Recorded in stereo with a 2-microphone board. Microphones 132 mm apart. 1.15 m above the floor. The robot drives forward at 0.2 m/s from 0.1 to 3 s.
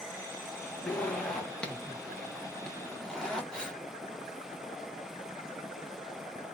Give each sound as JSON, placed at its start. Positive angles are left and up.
{"t": 0.9, "sound": "a zipper", "side_deg": 5, "distance_m": 1.5}
{"t": 3.5, "sound": "breathing", "side_deg": 5, "distance_m": 1.3}